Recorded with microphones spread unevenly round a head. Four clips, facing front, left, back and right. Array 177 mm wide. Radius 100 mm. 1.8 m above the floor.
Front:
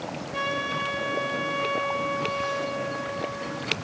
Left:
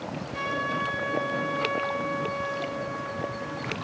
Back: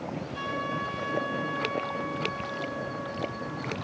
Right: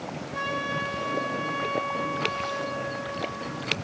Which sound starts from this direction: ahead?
A trumpet, at 0.3 s.